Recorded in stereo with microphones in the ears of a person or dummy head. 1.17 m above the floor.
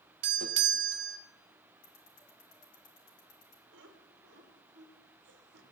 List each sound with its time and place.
0.2 s a doorbell: 55° right (ahead or behind), 0.7 m
1.8 s ticking: 50° left (ahead or behind), 1.5 m
3.7 s laughter: 60° right (ahead or behind), 1.5 m